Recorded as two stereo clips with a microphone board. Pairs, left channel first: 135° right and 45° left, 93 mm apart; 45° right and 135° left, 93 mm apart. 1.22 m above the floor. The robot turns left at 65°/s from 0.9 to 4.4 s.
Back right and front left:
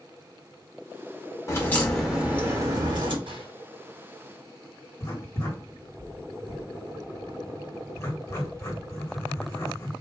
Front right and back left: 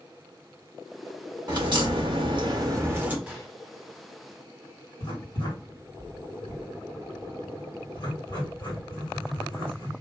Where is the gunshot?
55° left, 2.5 m; by 3.6 s 35° left, 2.5 m.